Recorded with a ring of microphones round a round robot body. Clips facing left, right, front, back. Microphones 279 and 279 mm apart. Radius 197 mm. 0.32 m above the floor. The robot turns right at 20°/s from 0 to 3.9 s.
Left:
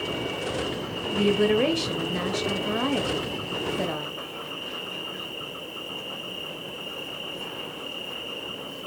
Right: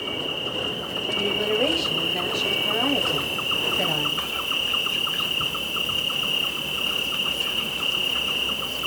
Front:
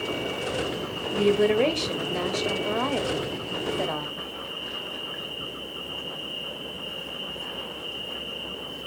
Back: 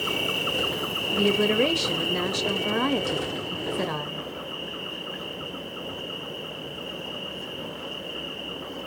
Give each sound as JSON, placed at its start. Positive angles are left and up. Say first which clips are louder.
{"t": 0.0, "sound": "an insect", "louder": "left 1 dB, front 1 dB", "azimuth_deg": -175, "distance_m": 0.8}
{"t": 1.1, "sound": "a woman speaking", "louder": "left 5 dB, front 2 dB", "azimuth_deg": 115, "distance_m": 1.0}